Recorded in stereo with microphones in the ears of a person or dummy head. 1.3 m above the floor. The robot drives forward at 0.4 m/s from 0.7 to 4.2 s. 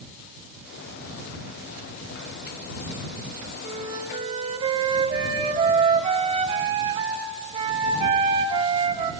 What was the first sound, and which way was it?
A flute, 30° right (ahead or behind).